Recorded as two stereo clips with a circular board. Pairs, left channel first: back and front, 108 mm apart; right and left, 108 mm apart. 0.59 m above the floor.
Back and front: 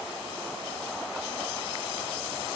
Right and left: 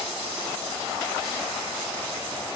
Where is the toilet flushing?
I don't hear a toilet flushing.